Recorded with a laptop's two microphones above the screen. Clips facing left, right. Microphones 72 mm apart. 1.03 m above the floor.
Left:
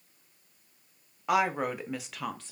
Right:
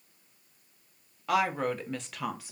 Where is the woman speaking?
20° left (ahead or behind), 1.0 m; by 2.5 s 10° right (ahead or behind), 0.6 m.